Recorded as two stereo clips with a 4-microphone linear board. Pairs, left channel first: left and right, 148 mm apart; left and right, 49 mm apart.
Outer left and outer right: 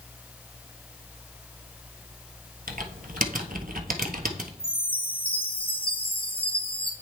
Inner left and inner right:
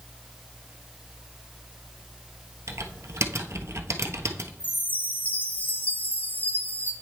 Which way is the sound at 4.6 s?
40° left (ahead or behind).